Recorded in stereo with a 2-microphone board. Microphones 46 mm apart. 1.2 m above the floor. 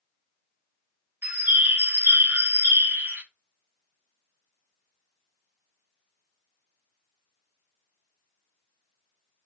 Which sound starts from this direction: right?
A bird, at 1.2 s.